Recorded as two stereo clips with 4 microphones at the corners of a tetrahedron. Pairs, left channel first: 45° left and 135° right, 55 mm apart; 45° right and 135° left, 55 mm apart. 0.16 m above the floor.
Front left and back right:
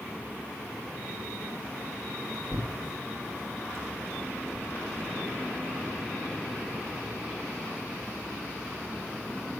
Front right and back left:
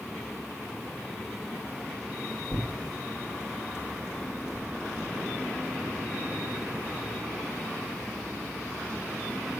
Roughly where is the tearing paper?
Ahead.